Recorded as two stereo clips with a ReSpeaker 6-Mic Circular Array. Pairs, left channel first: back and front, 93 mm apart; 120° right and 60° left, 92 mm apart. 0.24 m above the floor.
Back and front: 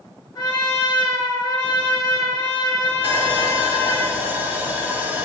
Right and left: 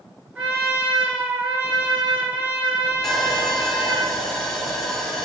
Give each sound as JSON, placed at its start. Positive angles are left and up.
{"t": 0.3, "sound": "a trumpet", "azimuth_deg": 135, "distance_m": 0.7}
{"t": 3.0, "sound": "sawing", "azimuth_deg": -40, "distance_m": 0.5}